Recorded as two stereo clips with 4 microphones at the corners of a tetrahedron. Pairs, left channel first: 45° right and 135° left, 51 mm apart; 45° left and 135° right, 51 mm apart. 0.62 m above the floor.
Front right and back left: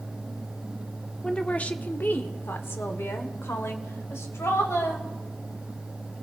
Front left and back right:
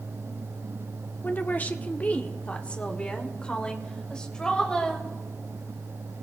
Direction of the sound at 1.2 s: 20° left.